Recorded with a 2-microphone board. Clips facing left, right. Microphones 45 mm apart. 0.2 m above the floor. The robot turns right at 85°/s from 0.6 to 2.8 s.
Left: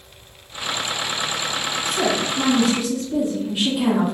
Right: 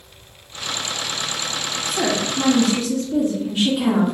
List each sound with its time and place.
1.9 s a woman speaking: 25° right (ahead or behind), 1.6 m; by 4.1 s 15° left (ahead or behind), 1.6 m